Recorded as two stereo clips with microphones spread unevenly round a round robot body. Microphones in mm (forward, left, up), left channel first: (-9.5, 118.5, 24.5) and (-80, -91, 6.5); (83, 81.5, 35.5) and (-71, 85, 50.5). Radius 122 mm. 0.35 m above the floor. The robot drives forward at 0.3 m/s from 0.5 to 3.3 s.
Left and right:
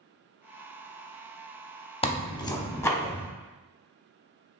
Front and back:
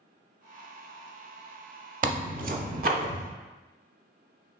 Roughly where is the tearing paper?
Behind left.